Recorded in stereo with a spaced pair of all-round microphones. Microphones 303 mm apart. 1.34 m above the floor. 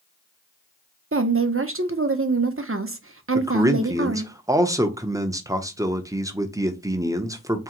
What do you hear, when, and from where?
1.1 s a woman speaking: 45° right (ahead or behind), 0.6 m
3.4 s a man speaking: 10° right (ahead or behind), 0.6 m